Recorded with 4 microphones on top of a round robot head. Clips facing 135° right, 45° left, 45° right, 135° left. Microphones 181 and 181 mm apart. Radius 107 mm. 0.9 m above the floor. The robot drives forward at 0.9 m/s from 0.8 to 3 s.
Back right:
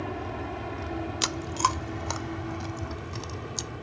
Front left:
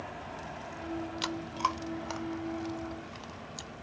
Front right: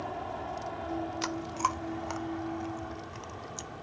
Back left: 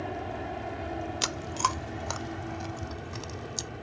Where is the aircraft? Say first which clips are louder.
Back right 9 dB, back left 2 dB; 155° right; by 3.8 s 160° right.